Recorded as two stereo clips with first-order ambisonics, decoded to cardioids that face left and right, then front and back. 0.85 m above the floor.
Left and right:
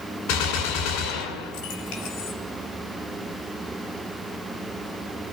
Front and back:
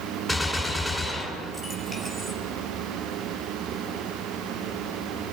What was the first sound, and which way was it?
A gunshot, 95° left.